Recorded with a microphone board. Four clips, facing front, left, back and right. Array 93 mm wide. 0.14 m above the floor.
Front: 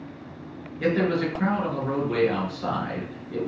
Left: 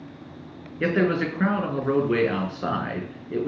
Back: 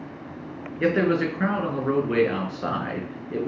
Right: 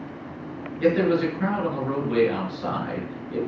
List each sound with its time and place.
0.8 s a man speaking: 130° left, 2 m